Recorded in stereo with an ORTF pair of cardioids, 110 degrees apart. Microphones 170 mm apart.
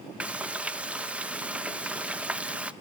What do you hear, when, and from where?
0.2 s frying: 10° right, 0.9 m